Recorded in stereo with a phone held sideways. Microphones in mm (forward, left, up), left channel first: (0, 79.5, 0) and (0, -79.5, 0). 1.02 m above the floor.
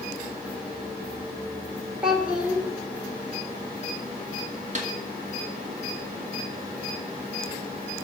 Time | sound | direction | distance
2.0 | a child speaking | 5° right (ahead or behind) | 2 m
4.8 | a snare drum | 50° right (ahead or behind) | 1.9 m